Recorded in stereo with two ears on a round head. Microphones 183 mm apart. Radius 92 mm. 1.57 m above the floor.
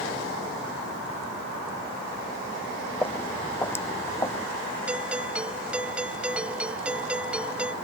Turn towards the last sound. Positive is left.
turn(degrees=-5)  # may be behind; listen again after turning